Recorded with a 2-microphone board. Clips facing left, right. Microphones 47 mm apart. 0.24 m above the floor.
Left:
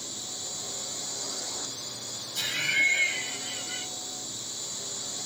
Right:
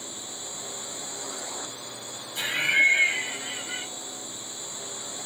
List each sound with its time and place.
0.0 s a drone: 20° right (ahead or behind)
2.4 s laughter: 20° right (ahead or behind)